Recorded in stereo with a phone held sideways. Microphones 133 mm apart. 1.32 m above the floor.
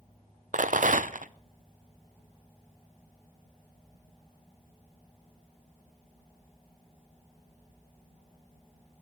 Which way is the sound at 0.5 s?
90° right.